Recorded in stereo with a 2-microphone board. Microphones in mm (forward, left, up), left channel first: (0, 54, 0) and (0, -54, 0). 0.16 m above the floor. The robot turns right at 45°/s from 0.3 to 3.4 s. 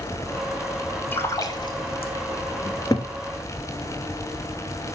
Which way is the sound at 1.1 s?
20° left (ahead or behind).